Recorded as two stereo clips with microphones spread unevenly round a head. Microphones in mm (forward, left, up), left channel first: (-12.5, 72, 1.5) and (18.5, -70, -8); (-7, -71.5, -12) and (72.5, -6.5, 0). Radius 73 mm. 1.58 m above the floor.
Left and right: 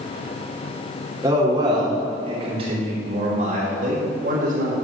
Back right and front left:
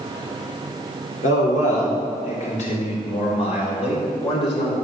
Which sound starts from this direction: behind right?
A man speaking, at 1.2 s.